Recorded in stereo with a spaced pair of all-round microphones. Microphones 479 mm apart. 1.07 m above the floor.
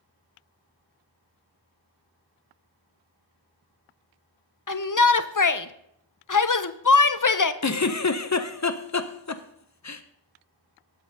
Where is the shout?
40° left (ahead or behind), 0.6 m.